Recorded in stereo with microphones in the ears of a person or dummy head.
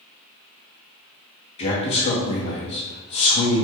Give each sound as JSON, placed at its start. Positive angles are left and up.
{"t": 1.6, "sound": "a man speaking", "side_deg": 30, "distance_m": 0.6}